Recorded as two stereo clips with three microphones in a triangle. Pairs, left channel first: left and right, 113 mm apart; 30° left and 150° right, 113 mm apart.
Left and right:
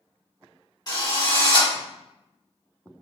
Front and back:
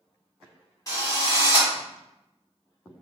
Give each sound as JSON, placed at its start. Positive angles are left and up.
{"t": 0.9, "sound": "a drill", "azimuth_deg": 70, "distance_m": 1.8}